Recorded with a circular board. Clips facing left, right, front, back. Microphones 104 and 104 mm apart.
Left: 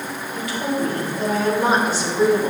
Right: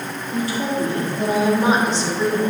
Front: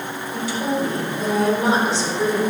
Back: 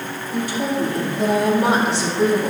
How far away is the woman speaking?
About 3 m.